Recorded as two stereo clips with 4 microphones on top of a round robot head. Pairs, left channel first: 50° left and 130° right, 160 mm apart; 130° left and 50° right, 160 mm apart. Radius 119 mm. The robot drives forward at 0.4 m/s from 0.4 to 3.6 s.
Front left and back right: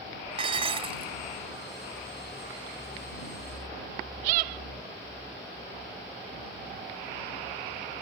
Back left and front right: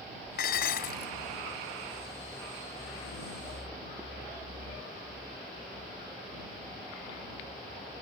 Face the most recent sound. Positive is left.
turn(degrees=170)